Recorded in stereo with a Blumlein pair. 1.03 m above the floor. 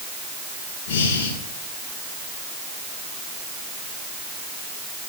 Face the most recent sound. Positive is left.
turn(degrees=55)